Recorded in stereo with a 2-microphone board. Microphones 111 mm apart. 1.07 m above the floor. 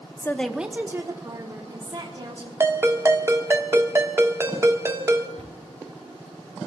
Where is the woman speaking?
25° left (ahead or behind), 0.7 m; by 2.5 s 45° right (ahead or behind), 3 m.